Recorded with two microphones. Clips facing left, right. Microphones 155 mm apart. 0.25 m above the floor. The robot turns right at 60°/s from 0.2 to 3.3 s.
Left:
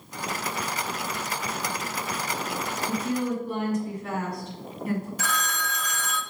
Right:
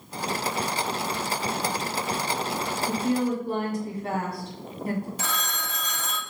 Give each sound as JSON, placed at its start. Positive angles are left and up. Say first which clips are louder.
{"t": 2.9, "sound": "a woman speaking", "louder": "right 3 dB", "side_deg": -50, "distance_m": 2.0}
{"t": 5.2, "sound": "a phone ringing", "louder": "left 2 dB", "side_deg": -25, "distance_m": 0.8}